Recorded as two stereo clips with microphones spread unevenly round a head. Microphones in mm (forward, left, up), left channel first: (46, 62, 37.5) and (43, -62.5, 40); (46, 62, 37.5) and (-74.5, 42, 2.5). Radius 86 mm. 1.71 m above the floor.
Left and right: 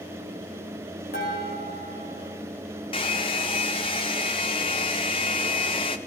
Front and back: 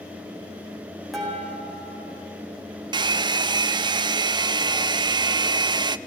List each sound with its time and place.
1.1 s dishes clattering: 100° left, 8.5 m
2.9 s a hair dryer: 135° left, 0.7 m